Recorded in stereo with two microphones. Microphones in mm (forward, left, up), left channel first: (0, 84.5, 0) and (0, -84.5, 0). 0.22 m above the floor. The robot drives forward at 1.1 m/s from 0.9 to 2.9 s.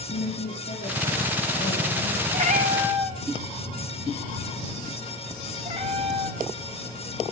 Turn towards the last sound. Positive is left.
turn(degrees=-35)  # may be behind; listen again after turning